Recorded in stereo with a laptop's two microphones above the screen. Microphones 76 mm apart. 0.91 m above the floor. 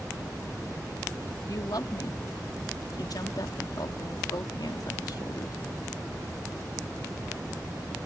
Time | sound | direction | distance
1.5 | a woman speaking | 65° left (ahead or behind) | ?